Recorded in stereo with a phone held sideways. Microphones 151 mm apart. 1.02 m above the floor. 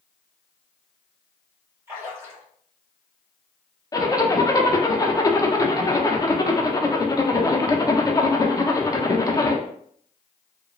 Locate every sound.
1.9 s a splash: 15° right (ahead or behind), 1.5 m
3.9 s a zipper: 25° left (ahead or behind), 0.5 m